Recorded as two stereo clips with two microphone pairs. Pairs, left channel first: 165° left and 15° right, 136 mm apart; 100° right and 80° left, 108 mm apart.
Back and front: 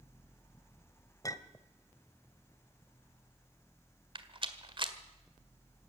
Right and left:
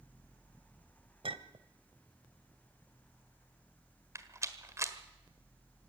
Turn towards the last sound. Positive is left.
turn(degrees=25)